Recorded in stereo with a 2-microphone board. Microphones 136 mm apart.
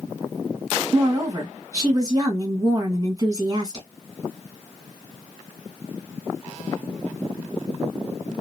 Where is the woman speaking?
30° right (ahead or behind), 1.6 m.